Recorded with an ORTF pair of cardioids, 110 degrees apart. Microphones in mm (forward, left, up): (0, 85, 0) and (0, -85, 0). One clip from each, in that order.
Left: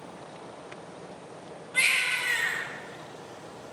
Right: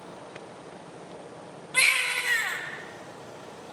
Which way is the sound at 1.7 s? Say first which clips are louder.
Right 1 dB; 30° right.